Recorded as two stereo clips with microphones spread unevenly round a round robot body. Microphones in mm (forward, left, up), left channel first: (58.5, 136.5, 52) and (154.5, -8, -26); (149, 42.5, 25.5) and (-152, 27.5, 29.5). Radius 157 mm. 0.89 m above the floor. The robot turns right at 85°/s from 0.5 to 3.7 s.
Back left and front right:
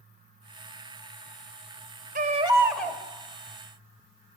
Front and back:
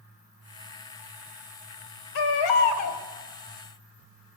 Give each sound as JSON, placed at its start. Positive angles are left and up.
{"t": 2.1, "sound": "a baby crying", "azimuth_deg": -20, "distance_m": 3.0}